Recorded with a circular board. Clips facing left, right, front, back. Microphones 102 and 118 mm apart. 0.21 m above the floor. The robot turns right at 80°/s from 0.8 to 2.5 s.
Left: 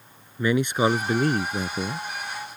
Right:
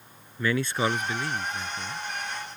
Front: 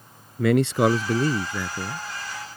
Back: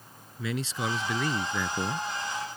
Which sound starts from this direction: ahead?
A man speaking, at 0.4 s.